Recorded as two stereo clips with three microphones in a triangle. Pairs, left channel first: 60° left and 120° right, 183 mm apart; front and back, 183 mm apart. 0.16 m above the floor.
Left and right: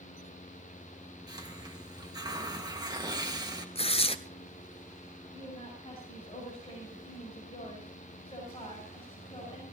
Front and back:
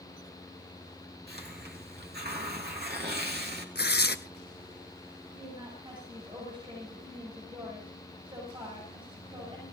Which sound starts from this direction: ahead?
Tearing paper, at 3.8 s.